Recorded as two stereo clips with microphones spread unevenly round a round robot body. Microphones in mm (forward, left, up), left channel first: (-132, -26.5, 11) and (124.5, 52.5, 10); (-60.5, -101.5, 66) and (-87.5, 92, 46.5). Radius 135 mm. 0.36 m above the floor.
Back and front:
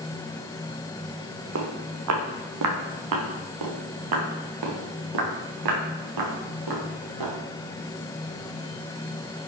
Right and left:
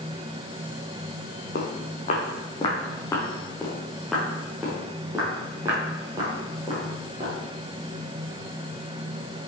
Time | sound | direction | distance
1.6 | footsteps | 30° right | 2 m